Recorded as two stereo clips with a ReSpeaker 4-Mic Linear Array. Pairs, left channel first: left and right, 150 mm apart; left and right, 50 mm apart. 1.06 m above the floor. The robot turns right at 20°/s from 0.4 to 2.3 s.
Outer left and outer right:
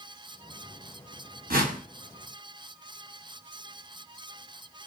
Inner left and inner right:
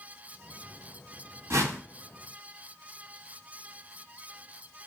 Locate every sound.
1.5 s a whoosh: 80° right, 1.0 m